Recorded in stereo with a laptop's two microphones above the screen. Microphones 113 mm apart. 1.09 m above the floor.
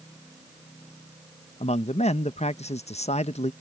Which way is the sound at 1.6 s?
75° left (ahead or behind).